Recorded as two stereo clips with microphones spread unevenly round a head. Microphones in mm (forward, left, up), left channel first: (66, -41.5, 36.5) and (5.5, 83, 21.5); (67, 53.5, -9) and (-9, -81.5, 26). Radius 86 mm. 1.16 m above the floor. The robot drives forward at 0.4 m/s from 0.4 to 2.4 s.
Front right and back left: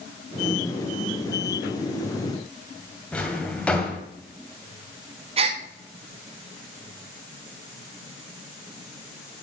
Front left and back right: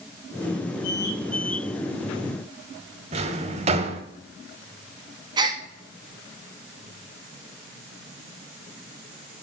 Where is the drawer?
140° right, 1.3 m.